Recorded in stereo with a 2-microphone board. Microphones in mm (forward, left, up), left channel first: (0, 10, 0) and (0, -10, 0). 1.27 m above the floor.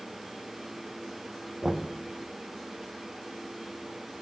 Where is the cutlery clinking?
No cutlery clinking in this recording.